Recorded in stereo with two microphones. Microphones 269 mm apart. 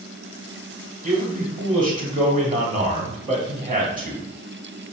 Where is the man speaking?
30° right (ahead or behind), 1.1 m.